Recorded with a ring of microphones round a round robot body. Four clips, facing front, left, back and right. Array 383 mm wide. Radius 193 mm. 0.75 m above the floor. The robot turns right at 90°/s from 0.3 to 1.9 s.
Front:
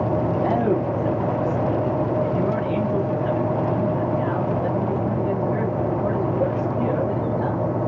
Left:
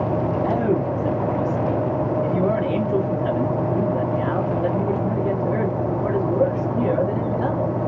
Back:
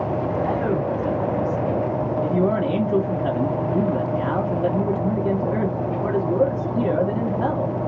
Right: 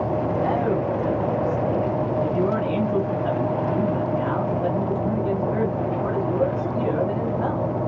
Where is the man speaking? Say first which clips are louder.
Left 2 dB, front 2 dB; 25° left, 1.3 m; by 7.8 s 160° left, 1.3 m.